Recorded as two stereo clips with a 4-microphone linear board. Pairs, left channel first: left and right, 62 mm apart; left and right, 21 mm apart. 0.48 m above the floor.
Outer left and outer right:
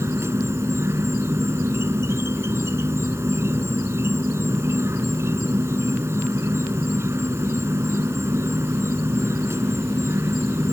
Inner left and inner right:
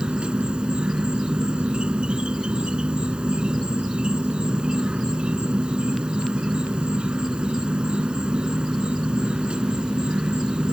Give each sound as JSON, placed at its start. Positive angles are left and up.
{"t": 0.0, "sound": "an insect", "side_deg": -50}